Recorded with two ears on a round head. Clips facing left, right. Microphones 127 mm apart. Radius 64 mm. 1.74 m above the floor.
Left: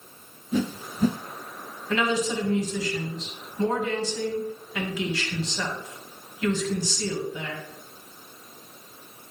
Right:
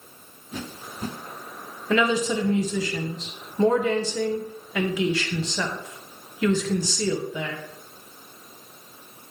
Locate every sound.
0.5 s a whoosh: 70° left (ahead or behind), 0.5 m
1.9 s a woman speaking: 65° right (ahead or behind), 1.5 m